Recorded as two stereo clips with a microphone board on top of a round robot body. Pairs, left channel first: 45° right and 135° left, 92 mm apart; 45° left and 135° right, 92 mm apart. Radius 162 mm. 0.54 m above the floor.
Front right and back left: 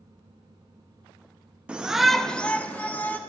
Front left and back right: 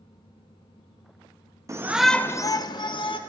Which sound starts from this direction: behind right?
A shout, at 1.7 s.